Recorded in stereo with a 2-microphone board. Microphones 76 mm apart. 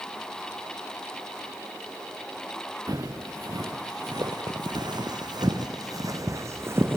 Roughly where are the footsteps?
Right.